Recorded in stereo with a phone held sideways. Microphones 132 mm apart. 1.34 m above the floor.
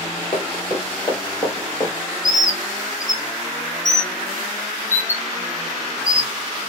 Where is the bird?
60° left (ahead or behind), 0.5 m.